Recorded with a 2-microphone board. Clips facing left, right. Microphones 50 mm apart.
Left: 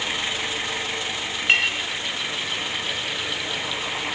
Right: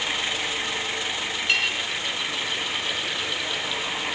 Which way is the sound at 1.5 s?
35° left (ahead or behind).